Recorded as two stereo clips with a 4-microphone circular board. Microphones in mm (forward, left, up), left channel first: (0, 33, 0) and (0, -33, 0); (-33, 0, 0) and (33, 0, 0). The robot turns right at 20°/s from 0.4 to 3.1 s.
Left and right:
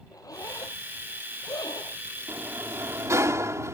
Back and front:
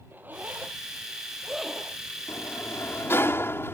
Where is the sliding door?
145° right; by 3.7 s 130° right.